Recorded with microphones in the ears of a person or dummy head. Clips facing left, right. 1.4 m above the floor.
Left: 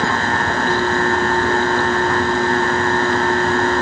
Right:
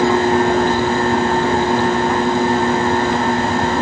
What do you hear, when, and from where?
Only background noise.